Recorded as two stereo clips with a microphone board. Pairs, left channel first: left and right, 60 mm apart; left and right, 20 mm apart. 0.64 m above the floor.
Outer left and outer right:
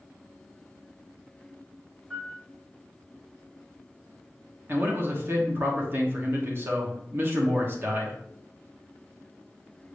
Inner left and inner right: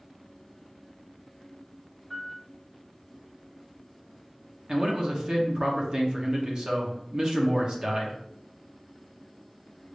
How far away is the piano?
About 1.3 m.